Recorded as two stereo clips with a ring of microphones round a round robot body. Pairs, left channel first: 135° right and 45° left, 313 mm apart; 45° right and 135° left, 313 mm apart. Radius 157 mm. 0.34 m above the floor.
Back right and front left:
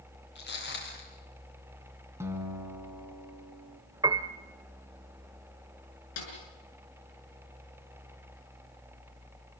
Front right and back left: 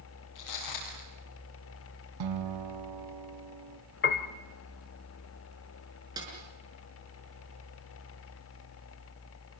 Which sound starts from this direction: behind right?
A snare drum, at 6.2 s.